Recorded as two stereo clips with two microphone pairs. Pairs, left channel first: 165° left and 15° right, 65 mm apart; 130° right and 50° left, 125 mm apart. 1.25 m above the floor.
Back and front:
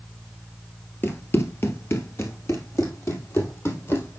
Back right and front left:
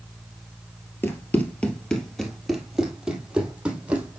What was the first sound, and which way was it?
Running footsteps, 170° left.